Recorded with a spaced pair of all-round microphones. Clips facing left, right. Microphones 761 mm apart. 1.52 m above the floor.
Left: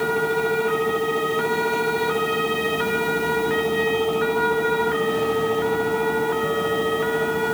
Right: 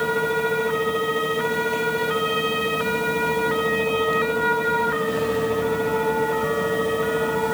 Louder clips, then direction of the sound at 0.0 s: Left 1 dB; 5° right (ahead or behind).